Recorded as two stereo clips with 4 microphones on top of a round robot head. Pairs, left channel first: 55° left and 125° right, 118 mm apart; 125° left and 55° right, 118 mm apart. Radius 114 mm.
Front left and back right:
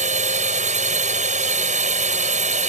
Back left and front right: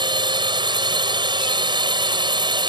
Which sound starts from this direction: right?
A drone, at 0.0 s.